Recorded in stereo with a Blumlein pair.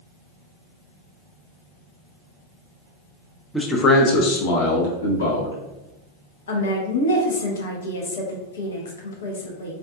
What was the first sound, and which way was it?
A man speaking, 5° left.